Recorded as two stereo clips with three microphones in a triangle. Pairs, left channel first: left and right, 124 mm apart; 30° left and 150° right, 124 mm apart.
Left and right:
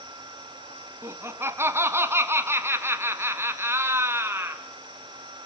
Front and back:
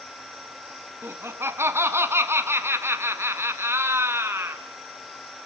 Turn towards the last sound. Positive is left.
turn(degrees=-120)